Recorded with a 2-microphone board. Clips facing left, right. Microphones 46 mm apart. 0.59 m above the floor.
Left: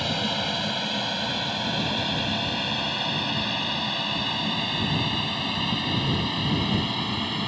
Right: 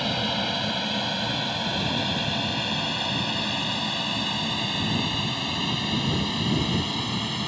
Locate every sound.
0.0 s an aircraft: centre (ahead or behind); by 7.5 s 10° left (ahead or behind)